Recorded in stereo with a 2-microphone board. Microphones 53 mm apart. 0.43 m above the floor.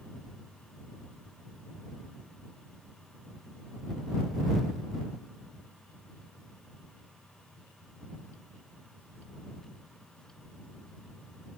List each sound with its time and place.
Only background noise.